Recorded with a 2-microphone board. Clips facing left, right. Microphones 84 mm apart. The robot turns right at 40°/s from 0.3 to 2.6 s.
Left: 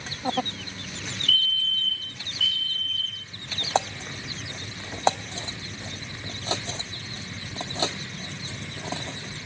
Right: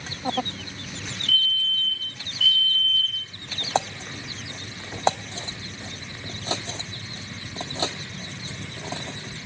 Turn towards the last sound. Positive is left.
turn(degrees=125)